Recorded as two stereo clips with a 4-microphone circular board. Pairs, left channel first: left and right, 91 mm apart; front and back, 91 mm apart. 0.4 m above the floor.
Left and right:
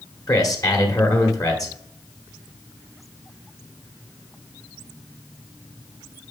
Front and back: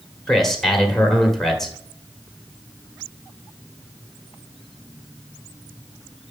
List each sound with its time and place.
0.3 s a man speaking: 85° left, 1.4 m